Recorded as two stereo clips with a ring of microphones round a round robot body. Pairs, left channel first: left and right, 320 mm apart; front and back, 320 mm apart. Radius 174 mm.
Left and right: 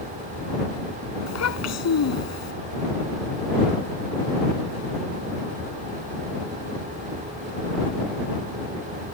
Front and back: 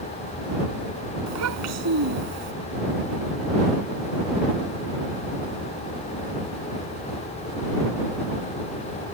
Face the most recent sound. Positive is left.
turn(degrees=130)